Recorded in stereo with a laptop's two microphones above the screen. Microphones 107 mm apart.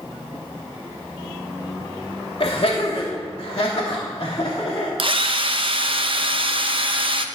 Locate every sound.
2.4 s laughter: 55° left (ahead or behind), 1.3 m; by 4.9 s 40° left (ahead or behind), 1.9 m
5.0 s a drill: 50° right (ahead or behind), 0.7 m